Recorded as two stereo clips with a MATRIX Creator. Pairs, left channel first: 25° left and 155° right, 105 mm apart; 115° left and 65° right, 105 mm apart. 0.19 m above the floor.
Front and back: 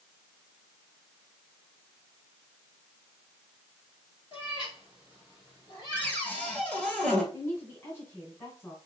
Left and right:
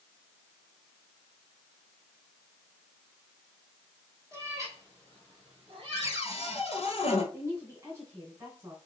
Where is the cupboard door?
100° left, 1.2 m.